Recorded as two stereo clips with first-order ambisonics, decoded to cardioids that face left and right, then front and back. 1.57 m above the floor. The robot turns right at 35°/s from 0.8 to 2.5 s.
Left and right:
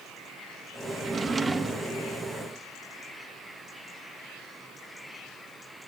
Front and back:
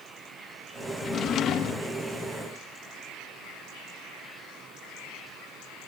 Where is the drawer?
40° right, 0.9 m; by 1.9 s 5° right, 0.9 m.